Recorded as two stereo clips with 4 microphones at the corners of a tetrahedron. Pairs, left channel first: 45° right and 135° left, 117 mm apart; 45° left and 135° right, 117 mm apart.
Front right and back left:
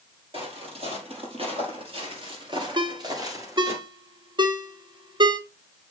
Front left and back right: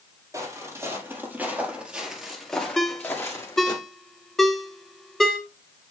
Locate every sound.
0.3 s footsteps: 165° left, 3.5 m; by 3.8 s 80° left, 2 m
2.8 s a ringtone: 130° left, 0.9 m